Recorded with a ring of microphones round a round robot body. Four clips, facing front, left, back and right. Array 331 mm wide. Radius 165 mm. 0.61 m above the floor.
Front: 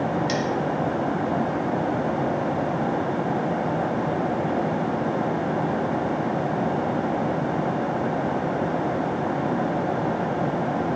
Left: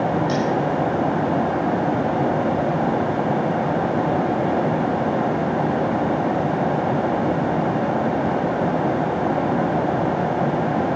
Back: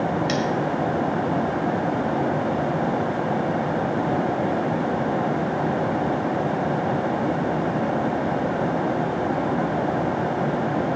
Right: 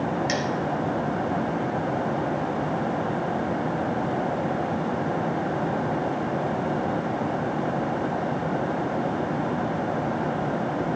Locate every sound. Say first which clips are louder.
0.3 s cutlery clinking: left 5 dB, back 1 dB; 100° right, 1.8 m